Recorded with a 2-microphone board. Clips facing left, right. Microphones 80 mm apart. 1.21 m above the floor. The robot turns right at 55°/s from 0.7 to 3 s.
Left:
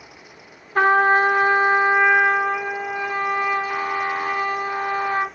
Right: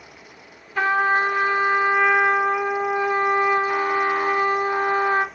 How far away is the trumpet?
About 1.2 m.